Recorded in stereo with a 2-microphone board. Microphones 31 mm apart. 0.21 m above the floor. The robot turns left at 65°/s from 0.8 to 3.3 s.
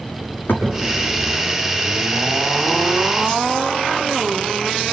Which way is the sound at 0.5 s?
85° left.